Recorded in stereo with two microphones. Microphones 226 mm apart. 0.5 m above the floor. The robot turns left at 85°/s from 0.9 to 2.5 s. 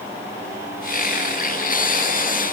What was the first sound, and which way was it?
Only background noise.